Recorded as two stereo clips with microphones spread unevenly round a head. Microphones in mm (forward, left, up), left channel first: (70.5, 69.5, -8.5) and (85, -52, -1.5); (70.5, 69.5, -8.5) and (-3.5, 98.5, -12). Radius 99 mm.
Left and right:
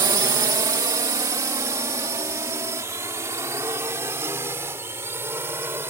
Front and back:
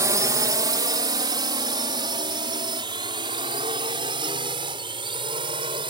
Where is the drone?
150° right; by 5.9 s 160° right.